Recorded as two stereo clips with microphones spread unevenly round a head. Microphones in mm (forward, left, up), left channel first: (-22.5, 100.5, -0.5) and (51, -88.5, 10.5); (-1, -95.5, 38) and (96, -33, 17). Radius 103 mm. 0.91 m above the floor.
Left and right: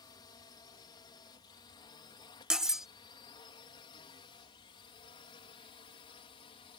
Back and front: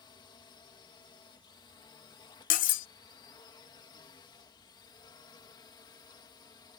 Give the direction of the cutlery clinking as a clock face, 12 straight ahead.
5 o'clock.